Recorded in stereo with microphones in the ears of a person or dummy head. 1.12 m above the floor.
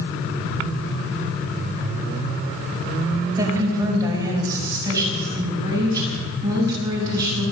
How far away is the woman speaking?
About 4.5 m.